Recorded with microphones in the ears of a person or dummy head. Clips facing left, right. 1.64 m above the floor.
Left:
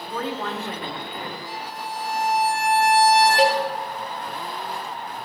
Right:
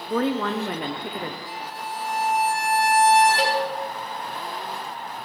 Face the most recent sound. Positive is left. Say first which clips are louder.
# left 4 dB
turn(degrees=10)  # may be behind; listen again after turning